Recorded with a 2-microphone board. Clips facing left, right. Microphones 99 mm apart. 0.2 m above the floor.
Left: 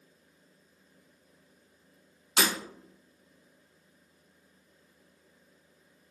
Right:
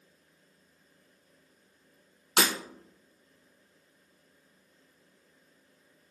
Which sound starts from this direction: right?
Breaking glass, at 2.4 s.